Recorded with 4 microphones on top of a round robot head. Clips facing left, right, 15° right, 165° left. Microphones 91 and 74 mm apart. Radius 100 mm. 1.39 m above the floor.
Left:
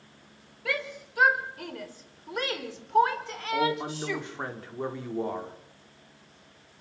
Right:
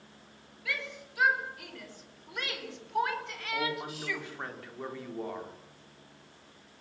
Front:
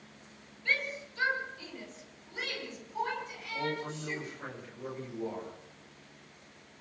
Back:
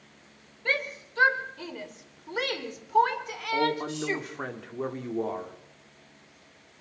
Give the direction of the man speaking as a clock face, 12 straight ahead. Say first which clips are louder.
Left 7 dB, back 8 dB; 7 o'clock.